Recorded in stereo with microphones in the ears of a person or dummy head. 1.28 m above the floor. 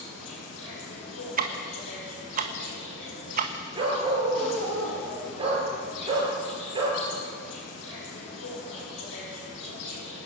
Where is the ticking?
45° right (ahead or behind), 1.5 m.